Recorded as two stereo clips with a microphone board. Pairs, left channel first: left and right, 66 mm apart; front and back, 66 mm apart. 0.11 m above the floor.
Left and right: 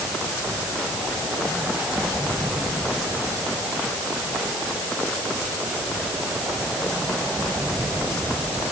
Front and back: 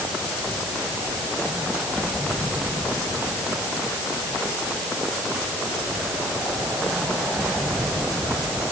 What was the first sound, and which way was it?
Only background noise.